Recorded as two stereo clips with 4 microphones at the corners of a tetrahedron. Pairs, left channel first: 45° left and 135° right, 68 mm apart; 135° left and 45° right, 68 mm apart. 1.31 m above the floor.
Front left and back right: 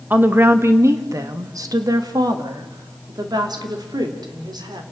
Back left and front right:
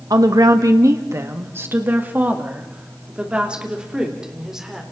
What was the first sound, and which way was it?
A woman speaking, 70° right.